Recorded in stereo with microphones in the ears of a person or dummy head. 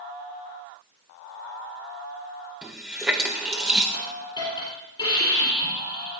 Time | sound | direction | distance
2.6 | a running tap | 5° right (ahead or behind) | 0.8 m
3.9 | a hiss | 25° left (ahead or behind) | 4.5 m